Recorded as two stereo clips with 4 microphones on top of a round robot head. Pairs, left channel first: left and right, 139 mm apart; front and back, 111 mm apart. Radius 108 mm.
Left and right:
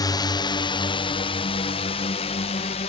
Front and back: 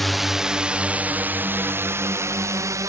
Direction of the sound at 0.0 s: 90° left.